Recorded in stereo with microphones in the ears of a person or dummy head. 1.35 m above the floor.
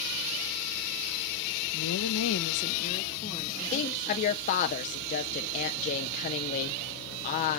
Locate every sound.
1.7 s a woman speaking: 75° left (ahead or behind), 1.0 m; by 4.7 s 10° left (ahead or behind), 3 m
3.7 s a woman speaking: 40° left (ahead or behind), 0.8 m